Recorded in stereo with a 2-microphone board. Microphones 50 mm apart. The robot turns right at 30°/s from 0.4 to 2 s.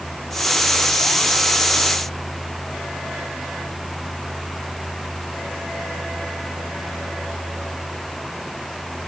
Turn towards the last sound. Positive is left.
No sound to turn to.